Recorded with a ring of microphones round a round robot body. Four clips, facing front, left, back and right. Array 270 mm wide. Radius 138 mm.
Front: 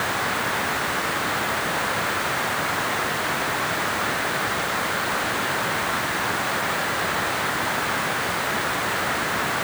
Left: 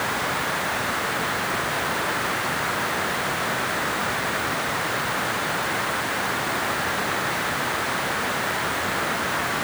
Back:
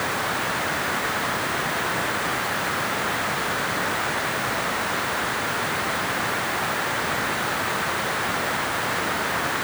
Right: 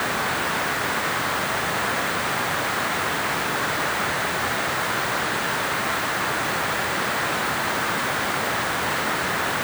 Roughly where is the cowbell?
I don't hear a cowbell.